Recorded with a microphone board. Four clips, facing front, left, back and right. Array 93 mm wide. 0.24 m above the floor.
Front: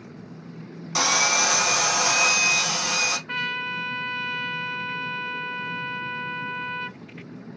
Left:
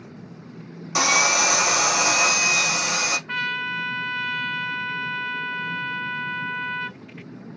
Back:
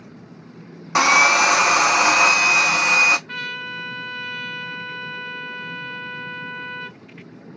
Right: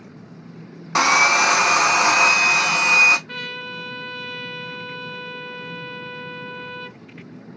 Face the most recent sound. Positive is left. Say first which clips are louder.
# left 5 dB, front 1 dB
turn(degrees=55)